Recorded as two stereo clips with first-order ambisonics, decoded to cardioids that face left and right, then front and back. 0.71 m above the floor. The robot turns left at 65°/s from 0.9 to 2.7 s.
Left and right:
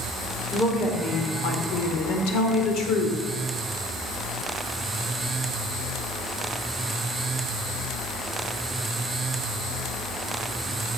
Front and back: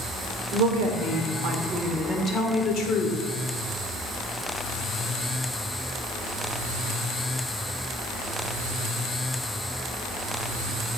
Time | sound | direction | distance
0.5 | a woman speaking | 160° left | 1.7 m